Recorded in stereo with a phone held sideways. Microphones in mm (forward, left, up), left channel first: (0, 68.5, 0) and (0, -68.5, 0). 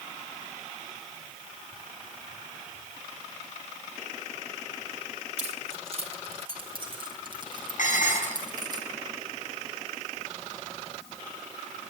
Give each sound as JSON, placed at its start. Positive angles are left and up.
{"t": 5.4, "sound": "keys jangling", "side_deg": -55, "distance_m": 3.5}
{"t": 7.8, "sound": "dishes clattering", "side_deg": 70, "distance_m": 6.0}